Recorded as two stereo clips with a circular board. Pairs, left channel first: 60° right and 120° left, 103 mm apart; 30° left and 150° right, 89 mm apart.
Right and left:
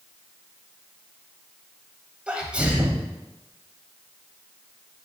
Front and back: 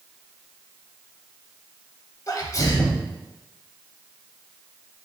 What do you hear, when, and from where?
2.3 s a sneeze: 45° left, 1.1 m